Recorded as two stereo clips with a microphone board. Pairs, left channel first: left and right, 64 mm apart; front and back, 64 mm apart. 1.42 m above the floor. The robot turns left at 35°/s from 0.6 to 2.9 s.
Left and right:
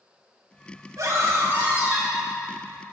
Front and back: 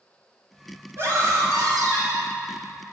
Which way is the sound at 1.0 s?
130° right.